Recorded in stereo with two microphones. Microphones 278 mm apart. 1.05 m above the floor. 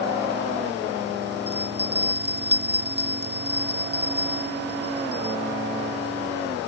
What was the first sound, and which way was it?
A bell, 35° right (ahead or behind).